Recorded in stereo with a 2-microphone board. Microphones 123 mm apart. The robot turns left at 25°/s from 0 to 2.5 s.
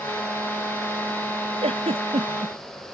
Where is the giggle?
55° right (ahead or behind); by 2.5 s 45° right (ahead or behind).